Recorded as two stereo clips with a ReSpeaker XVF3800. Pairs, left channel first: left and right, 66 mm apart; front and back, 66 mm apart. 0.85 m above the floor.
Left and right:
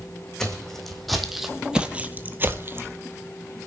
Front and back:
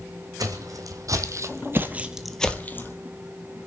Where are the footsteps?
175° left, 2 m; by 3.0 s 40° right, 1.3 m.